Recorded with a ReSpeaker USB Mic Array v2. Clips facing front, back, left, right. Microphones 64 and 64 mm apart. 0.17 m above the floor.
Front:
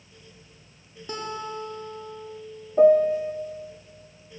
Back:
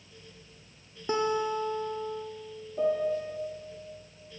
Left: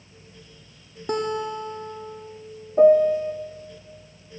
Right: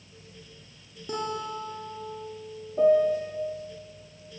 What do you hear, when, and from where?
1.1 s a guitar: 115° left, 3 m
2.8 s a piano: 45° left, 1.8 m